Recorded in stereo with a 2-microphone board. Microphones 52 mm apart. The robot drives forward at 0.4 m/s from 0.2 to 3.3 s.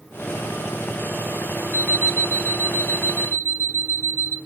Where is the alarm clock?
40° left (ahead or behind), 0.9 m; by 4.4 s 45° left (ahead or behind), 0.8 m.